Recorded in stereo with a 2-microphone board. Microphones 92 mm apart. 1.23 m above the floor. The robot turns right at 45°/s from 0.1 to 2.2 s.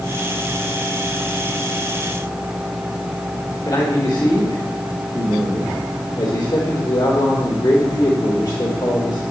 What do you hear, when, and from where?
3.6 s a man speaking: 40° left (ahead or behind), 2.5 m